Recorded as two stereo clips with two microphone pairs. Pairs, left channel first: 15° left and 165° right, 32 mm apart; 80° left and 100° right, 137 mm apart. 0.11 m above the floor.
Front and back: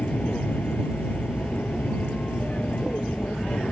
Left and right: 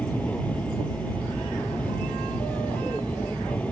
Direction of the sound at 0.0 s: Straight ahead.